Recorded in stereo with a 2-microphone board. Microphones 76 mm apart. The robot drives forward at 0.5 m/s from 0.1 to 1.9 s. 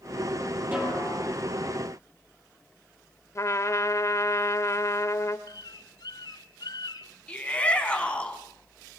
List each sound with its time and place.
0.7 s a snare drum: 20° right (ahead or behind), 7 m
3.4 s a trumpet: 40° left (ahead or behind), 1.3 m
5.5 s a bird: 65° left (ahead or behind), 1.1 m
7.3 s a shout: 15° left (ahead or behind), 3.5 m